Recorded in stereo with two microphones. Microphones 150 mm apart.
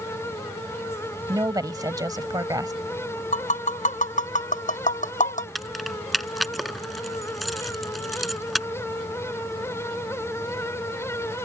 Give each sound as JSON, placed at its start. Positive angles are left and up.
{"t": 1.3, "sound": "a woman speaking", "side_deg": -25}
{"t": 3.3, "sound": "tapping", "side_deg": 60}
{"t": 5.5, "sound": "keys jangling", "side_deg": 0}